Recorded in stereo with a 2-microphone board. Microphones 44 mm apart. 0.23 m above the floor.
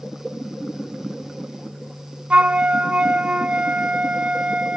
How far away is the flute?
About 0.5 m.